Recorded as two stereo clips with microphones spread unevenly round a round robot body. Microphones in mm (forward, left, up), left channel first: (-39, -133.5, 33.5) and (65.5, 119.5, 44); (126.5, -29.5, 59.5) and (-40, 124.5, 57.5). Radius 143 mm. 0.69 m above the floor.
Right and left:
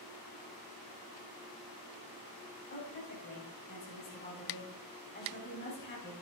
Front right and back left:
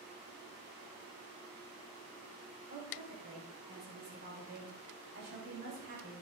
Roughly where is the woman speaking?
Behind.